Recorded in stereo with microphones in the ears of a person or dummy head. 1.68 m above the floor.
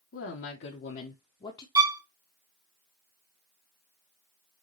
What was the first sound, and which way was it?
A woman speaking, 75° left (ahead or behind).